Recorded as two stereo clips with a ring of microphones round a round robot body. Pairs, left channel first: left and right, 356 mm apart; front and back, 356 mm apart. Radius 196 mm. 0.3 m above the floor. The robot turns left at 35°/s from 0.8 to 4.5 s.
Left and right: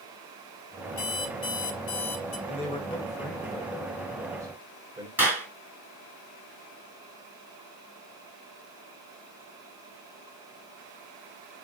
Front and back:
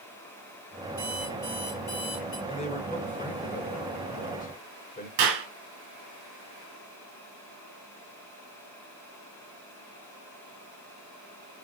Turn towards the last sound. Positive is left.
turn(degrees=-175)